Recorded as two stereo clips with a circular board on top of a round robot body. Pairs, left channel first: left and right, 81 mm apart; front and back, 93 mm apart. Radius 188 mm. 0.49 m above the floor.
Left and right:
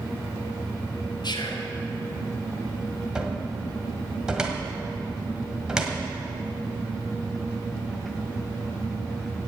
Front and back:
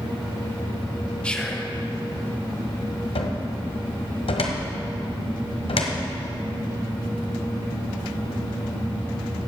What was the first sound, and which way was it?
Whispering, 80° left.